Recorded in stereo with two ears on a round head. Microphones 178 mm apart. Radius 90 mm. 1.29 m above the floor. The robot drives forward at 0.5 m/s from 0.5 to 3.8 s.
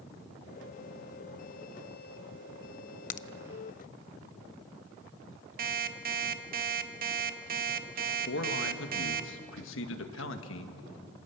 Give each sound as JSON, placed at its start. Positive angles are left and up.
{"t": 3.1, "sound": "a crack", "side_deg": 40, "distance_m": 0.7}
{"t": 5.6, "sound": "an alarm clock", "side_deg": -45, "distance_m": 1.4}
{"t": 8.3, "sound": "a man speaking", "side_deg": 65, "distance_m": 1.8}